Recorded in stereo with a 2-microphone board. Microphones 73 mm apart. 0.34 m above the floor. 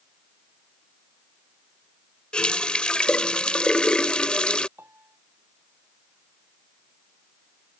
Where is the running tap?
15° left (ahead or behind).